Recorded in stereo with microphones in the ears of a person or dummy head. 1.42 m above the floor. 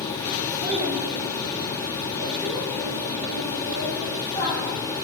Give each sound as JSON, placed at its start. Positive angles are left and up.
{"t": 0.6, "sound": "a child speaking", "side_deg": -15, "distance_m": 2.0}